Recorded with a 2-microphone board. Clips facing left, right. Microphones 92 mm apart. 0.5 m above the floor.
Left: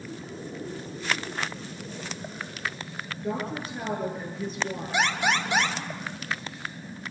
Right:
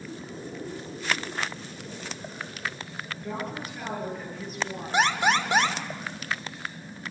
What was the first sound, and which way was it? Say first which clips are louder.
A woman speaking: left 4 dB; 25° left (ahead or behind).